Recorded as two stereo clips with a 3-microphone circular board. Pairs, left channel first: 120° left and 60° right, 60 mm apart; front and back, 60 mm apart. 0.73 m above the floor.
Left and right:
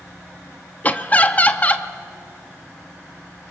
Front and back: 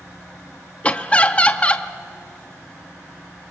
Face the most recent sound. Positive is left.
turn(degrees=60)